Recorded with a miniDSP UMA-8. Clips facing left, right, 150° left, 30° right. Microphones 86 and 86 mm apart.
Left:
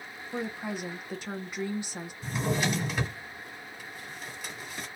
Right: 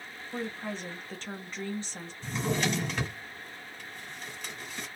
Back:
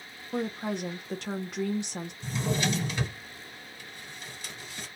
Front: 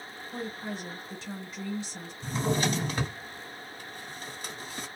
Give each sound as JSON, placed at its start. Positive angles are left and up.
{"t": 0.3, "sound": "a woman speaking", "azimuth_deg": 170, "distance_m": 0.6}
{"t": 2.2, "sound": "a drawer", "azimuth_deg": 10, "distance_m": 1.2}